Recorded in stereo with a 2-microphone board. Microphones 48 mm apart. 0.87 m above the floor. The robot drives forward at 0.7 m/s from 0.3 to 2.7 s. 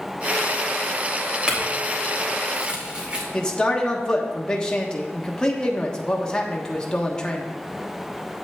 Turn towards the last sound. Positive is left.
turn(degrees=15)  # may be behind; listen again after turning